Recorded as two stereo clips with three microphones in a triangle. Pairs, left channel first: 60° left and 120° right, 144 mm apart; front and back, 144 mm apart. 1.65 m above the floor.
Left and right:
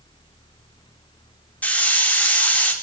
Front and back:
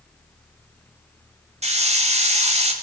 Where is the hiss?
140° left, 4 m.